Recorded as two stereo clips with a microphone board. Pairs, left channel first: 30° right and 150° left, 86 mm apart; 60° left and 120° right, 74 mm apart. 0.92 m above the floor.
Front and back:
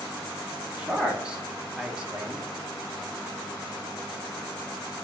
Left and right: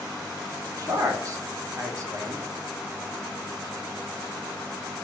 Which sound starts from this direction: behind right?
A man speaking, at 0.8 s.